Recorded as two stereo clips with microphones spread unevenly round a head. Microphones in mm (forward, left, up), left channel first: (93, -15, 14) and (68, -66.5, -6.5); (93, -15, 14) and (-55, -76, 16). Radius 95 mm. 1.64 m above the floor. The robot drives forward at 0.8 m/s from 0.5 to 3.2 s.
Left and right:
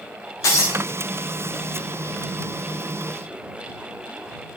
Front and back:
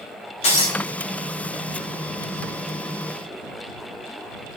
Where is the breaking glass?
85° left, 3.5 m; by 0.8 s 90° left, 3.5 m.